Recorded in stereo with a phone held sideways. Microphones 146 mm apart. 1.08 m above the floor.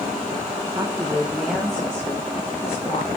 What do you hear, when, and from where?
0.8 s a woman speaking: 20° right (ahead or behind), 0.9 m; by 3.2 s 25° left (ahead or behind), 2.5 m